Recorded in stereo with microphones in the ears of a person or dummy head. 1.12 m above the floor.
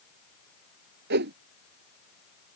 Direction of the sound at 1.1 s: 60° right (ahead or behind).